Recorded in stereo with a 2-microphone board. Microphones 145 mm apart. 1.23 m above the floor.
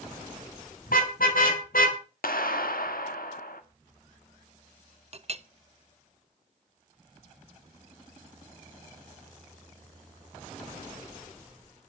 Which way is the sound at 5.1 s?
45° right (ahead or behind).